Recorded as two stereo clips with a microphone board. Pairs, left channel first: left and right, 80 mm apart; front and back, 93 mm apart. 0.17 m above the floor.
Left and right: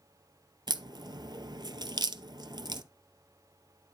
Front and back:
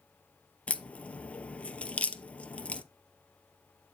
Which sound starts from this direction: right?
A crack, at 0.7 s.